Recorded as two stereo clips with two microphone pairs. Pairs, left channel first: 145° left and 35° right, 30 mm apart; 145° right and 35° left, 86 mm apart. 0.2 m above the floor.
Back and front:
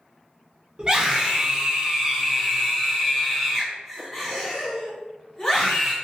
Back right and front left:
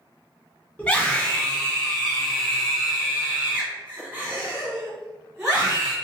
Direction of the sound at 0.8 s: 80° right.